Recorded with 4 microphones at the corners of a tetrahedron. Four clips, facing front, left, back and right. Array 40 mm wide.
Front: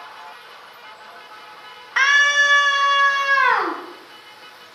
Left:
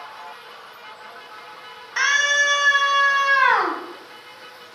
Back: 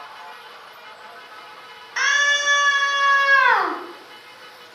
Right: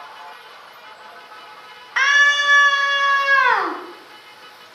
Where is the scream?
45° right, 1.1 m; by 3.8 s 175° left, 1.0 m.